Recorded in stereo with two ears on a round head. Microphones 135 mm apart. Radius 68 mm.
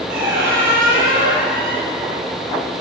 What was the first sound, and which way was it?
A squeak, 65° right (ahead or behind).